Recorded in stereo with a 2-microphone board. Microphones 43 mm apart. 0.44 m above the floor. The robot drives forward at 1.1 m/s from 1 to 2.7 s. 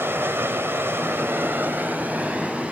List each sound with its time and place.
0.0 s running water: 70° right (ahead or behind), 1.2 m; by 2.7 s 30° right (ahead or behind), 2 m